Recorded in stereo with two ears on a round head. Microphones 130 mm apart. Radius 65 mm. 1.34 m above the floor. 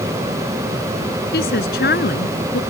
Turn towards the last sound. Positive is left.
turn(degrees=75)  # may be behind; listen again after turning